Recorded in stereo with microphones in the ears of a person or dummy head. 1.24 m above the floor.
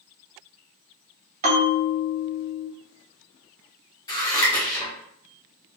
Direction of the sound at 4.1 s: 15° left (ahead or behind).